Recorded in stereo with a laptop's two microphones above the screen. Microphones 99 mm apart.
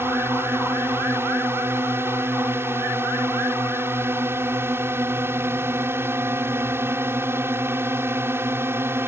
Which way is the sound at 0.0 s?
25° right (ahead or behind).